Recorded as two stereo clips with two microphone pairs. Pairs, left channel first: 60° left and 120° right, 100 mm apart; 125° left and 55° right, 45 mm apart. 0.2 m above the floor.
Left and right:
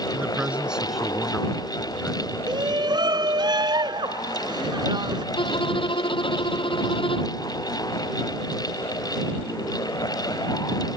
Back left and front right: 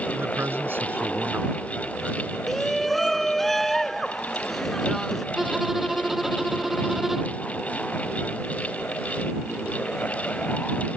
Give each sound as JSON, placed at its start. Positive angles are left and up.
{"t": 0.1, "sound": "a man speaking", "azimuth_deg": -55}
{"t": 2.5, "sound": "a shout", "azimuth_deg": -150}
{"t": 5.3, "sound": "a violin", "azimuth_deg": 30}